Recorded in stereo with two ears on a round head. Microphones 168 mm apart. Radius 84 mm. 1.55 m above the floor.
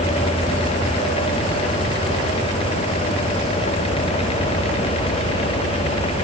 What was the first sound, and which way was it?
Only background noise.